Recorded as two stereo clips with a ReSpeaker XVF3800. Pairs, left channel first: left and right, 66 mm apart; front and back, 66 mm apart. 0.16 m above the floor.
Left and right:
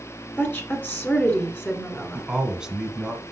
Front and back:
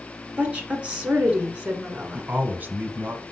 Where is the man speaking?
155° right, 1.1 m.